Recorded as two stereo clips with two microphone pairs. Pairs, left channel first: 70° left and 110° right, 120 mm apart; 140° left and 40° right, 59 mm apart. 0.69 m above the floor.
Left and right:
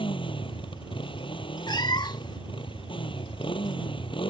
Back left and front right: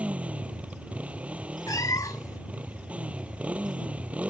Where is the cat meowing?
125° left.